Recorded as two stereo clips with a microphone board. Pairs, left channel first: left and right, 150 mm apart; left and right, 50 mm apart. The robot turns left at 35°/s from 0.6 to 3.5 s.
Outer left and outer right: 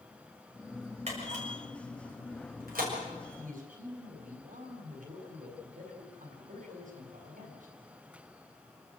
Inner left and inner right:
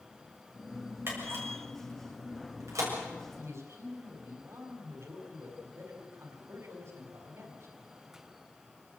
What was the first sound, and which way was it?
A camera shutter, 50° right (ahead or behind).